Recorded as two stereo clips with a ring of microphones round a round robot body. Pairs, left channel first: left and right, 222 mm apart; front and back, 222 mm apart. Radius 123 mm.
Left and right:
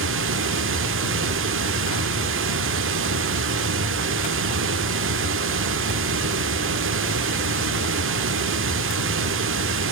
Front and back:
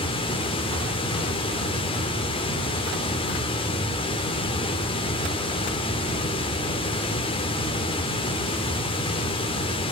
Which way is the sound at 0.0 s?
70° right.